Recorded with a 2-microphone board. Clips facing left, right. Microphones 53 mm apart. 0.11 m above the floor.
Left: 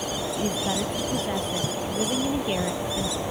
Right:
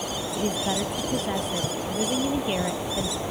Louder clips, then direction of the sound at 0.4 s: Right 2 dB; 10° right (ahead or behind).